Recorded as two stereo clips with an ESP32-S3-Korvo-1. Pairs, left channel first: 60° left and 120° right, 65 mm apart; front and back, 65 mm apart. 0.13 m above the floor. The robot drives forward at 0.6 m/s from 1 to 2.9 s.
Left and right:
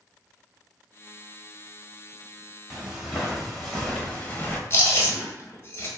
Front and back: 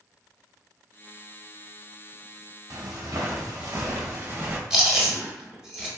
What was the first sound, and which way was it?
Footsteps, 160° left.